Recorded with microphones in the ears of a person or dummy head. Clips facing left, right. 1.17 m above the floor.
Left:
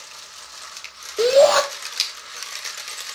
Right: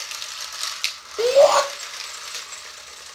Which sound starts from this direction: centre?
A shout, at 1.2 s.